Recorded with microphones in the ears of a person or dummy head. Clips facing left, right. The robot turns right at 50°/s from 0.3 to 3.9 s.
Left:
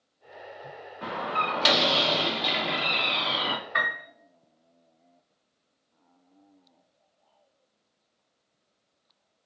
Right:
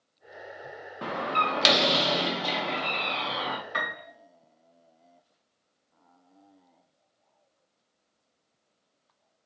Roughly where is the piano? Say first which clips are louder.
Left 1 dB; right.